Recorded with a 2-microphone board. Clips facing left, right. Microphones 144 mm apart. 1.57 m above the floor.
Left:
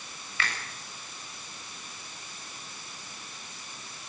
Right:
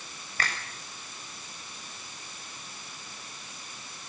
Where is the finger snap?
40° right (ahead or behind), 7.5 m.